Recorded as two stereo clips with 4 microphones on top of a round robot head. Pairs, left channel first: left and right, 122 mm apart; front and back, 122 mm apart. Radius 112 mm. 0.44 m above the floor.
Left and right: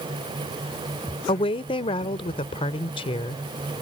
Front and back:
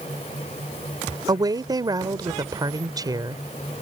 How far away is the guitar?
I don't hear a guitar.